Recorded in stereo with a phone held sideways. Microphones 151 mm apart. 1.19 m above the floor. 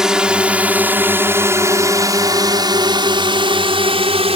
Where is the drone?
5° right (ahead or behind); by 4.4 s 40° right (ahead or behind).